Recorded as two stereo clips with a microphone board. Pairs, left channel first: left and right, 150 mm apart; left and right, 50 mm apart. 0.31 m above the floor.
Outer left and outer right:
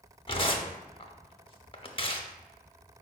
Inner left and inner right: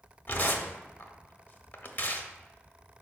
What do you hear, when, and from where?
0.3 s tearing paper: 35° left (ahead or behind), 0.6 m